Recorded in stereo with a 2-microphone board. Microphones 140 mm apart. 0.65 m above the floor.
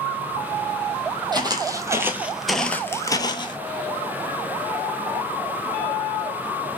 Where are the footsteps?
30° right (ahead or behind), 1.0 m; by 3.6 s 35° left (ahead or behind), 0.8 m.